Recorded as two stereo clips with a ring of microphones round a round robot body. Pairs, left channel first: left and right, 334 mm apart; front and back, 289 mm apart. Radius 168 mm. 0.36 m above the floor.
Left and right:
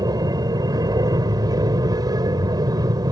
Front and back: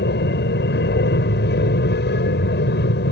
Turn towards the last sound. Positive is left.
turn(degrees=-20)